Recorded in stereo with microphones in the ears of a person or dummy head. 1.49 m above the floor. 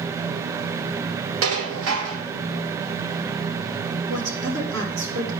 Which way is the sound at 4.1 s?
90° right.